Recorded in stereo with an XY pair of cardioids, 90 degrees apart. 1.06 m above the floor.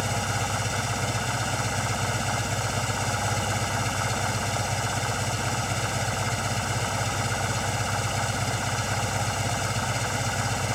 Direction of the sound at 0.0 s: 5° left.